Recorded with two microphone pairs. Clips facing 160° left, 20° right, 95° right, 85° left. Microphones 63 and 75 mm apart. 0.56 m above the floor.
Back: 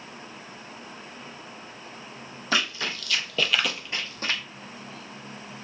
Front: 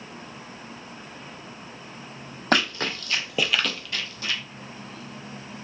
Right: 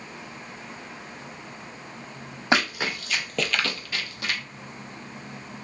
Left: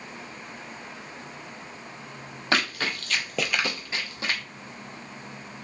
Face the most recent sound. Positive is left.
turn(degrees=135)